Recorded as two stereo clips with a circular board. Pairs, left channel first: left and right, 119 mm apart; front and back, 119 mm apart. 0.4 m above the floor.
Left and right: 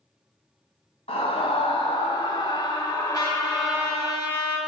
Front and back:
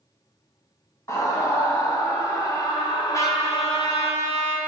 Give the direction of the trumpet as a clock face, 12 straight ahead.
10 o'clock.